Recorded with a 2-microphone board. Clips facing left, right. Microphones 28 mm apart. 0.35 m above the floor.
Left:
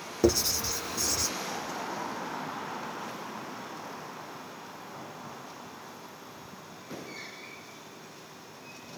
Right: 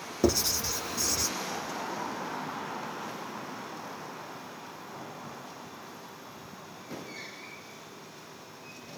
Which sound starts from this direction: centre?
Writing, at 0.2 s.